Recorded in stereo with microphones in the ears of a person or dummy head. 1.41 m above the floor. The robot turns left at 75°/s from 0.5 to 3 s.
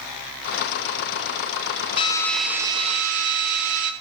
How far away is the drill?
About 2.5 m.